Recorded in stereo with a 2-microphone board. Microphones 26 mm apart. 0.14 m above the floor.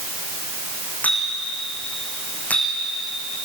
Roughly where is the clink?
Left.